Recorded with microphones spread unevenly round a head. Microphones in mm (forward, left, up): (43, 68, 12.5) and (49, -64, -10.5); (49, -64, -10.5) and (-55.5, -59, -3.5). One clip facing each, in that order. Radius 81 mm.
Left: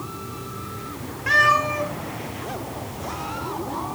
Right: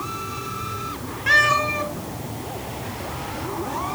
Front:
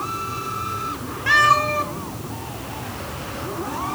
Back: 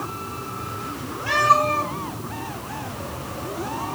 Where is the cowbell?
I don't hear a cowbell.